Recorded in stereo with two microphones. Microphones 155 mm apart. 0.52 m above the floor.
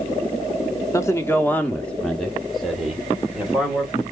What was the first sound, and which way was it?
A man speaking, 20° left (ahead or behind).